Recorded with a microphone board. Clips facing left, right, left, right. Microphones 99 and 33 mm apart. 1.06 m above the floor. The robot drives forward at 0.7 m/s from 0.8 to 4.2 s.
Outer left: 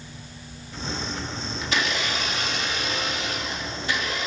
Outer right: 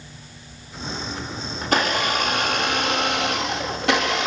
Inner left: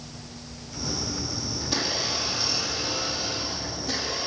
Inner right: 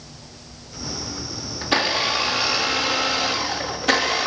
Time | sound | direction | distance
1.6 | a blender | 45° right (ahead or behind) | 3 m